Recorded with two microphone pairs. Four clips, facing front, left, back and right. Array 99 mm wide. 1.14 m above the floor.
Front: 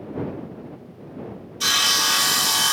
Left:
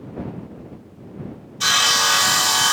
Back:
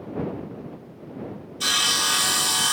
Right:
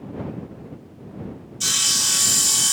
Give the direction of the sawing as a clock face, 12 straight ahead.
9 o'clock.